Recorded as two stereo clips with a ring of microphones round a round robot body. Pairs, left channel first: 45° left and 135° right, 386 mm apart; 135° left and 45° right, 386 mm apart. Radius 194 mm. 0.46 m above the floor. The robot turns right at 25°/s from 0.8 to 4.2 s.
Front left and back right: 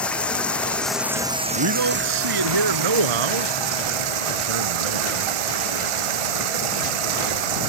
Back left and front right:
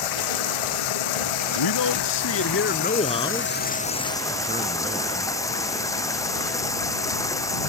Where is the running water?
130° left; by 7.7 s 145° right.